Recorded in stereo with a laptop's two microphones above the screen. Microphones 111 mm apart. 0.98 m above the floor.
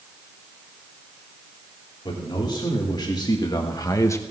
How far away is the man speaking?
About 2.5 m.